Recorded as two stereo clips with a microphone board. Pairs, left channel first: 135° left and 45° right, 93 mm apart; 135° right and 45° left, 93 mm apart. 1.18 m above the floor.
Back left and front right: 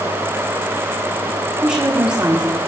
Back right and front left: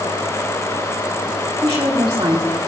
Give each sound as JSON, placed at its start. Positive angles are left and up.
{"t": 1.6, "sound": "a woman speaking", "azimuth_deg": 15, "distance_m": 1.7}